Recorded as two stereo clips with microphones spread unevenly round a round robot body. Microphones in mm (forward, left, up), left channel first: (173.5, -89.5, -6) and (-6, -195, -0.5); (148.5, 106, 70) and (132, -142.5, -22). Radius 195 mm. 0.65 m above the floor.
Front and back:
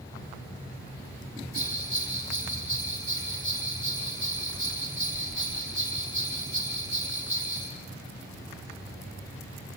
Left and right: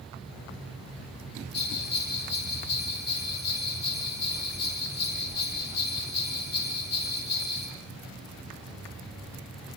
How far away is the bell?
About 6 m.